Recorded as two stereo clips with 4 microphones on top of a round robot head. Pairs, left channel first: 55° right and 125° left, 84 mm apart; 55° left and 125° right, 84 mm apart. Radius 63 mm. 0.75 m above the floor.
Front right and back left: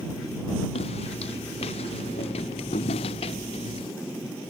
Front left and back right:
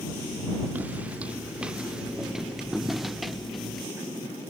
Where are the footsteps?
55° right; by 3.9 s 35° right.